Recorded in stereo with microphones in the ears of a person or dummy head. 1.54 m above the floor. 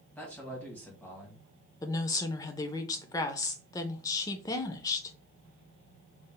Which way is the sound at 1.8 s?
25° left (ahead or behind).